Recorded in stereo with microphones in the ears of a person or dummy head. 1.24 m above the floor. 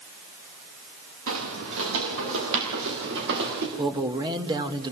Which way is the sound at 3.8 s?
30° right (ahead or behind).